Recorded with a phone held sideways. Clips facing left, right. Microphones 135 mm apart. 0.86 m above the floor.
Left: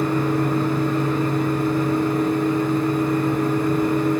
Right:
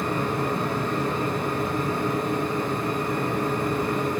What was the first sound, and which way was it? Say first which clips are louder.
A fan: left 6 dB; 30° right (ahead or behind).